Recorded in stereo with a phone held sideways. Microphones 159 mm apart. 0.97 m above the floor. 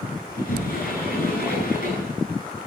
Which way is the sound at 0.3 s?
70° left (ahead or behind).